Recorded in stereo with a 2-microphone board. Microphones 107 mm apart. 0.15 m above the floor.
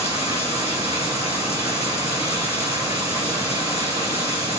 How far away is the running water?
About 2 m.